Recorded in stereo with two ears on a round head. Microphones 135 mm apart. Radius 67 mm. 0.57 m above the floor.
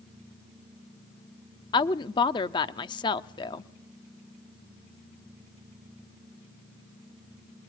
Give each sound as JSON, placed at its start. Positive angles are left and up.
{"t": 1.7, "sound": "a woman speaking", "side_deg": 30, "distance_m": 0.7}